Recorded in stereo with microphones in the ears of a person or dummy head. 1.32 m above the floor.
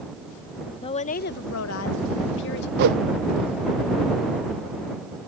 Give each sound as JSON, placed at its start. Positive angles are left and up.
{"t": 0.8, "sound": "a woman speaking", "side_deg": 30}
{"t": 2.8, "sound": "a whoosh", "side_deg": -50}